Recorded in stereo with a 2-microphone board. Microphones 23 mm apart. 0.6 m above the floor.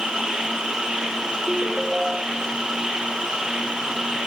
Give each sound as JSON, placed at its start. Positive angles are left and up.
{"t": 0.0, "sound": "an insect", "side_deg": -45, "distance_m": 6.0}
{"t": 1.5, "sound": "a ringtone", "side_deg": -10, "distance_m": 1.9}